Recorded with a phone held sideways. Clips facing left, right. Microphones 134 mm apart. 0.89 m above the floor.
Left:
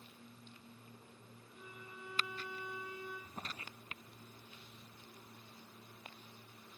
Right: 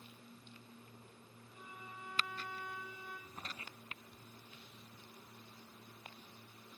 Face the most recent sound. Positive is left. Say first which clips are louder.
# left 2 dB
turn(degrees=35)  # may be behind; listen again after turning